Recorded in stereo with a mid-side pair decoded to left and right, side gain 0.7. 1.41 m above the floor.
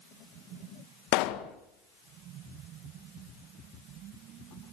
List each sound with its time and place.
1.1 s a pop: 70° left, 1.6 m